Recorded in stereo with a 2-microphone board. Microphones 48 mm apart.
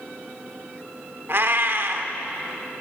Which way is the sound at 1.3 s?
50° right (ahead or behind).